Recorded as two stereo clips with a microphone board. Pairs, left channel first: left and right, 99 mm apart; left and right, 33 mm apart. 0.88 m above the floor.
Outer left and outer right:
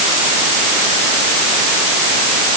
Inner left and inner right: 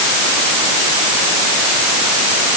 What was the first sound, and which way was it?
Only background noise.